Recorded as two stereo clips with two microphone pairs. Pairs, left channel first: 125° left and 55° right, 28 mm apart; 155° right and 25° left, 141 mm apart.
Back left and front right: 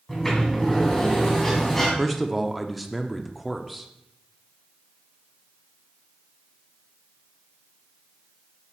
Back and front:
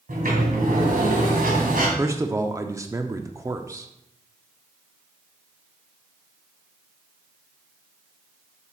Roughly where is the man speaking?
Ahead left.